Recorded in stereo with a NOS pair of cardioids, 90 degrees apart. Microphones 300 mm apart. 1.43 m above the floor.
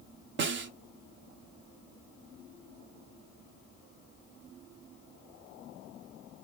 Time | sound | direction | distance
0.4 | a snare drum | 40° right | 0.5 m